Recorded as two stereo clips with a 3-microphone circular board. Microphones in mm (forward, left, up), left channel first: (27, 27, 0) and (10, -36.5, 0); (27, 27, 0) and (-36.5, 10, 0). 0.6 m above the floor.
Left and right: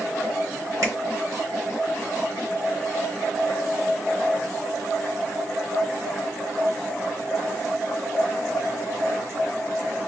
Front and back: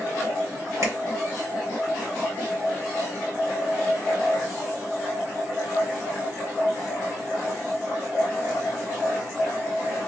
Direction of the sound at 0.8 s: 135° right.